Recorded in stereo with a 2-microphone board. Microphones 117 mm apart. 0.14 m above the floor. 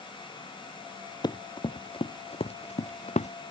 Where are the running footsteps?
40° left (ahead or behind); by 3.3 s 75° left (ahead or behind).